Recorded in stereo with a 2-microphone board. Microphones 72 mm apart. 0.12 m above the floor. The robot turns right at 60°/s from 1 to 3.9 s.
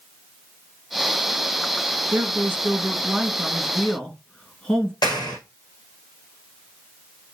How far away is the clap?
About 4.5 m.